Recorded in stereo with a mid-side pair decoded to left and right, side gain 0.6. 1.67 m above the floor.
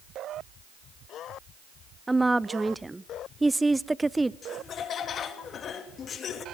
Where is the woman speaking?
10° right, 0.7 m.